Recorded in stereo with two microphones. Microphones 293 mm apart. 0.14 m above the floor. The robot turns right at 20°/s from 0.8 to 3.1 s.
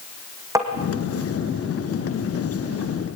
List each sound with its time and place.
0.6 s tapping: 10° right (ahead or behind), 3.5 m